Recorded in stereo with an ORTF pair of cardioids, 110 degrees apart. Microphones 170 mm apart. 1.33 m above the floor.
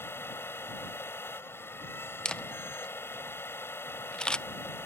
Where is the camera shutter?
5° left.